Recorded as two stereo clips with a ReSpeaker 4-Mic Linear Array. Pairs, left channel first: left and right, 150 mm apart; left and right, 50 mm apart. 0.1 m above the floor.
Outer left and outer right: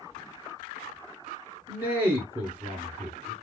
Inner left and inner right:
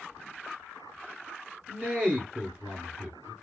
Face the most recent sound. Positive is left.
turn(degrees=-15)  # may be behind; listen again after turning